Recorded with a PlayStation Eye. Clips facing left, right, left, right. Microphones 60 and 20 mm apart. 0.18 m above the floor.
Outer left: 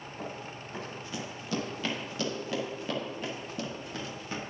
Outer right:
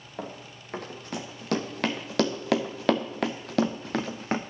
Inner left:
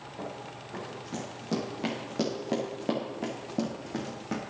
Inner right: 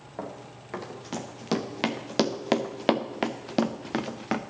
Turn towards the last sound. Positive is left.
turn(degrees=-50)  # may be behind; listen again after turning